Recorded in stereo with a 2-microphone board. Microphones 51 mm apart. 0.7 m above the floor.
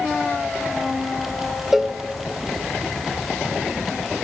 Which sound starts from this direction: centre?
A cowbell, at 1.7 s.